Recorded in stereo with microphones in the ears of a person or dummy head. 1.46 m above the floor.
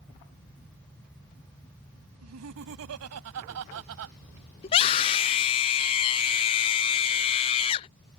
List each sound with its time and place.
2.2 s laughter: 90° right
4.6 s a scream: 30° left (ahead or behind)